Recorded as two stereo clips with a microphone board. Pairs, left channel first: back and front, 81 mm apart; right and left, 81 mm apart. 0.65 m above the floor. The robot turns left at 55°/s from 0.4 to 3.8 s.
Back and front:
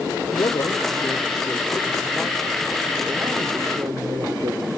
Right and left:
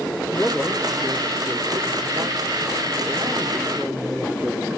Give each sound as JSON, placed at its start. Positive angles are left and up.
{"t": 0.3, "sound": "a man speaking", "azimuth_deg": -170, "distance_m": 2.0}